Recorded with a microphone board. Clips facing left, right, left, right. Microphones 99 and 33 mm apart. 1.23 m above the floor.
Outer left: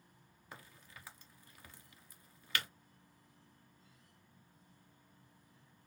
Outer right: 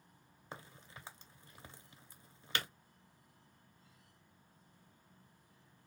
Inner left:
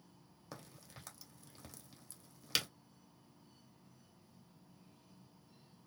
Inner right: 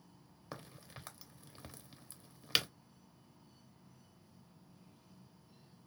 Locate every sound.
0.5 s a crack: 25° right (ahead or behind), 0.8 m